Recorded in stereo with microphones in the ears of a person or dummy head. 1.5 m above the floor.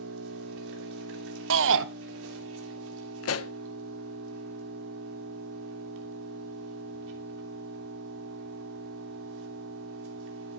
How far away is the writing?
I don't hear writing.